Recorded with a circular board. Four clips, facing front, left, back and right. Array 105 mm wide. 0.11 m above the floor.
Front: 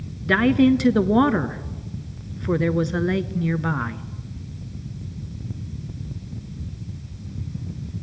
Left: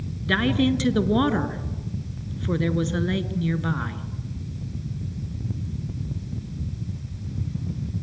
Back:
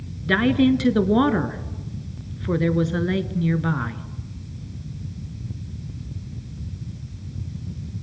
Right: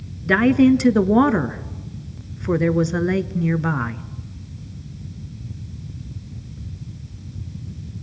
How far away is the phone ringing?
I don't hear a phone ringing.